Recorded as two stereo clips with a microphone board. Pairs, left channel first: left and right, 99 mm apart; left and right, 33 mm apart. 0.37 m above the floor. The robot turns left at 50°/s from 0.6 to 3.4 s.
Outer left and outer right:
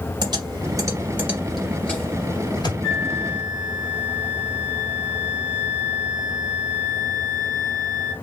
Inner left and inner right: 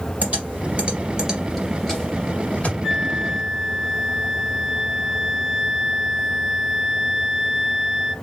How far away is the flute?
About 1.0 m.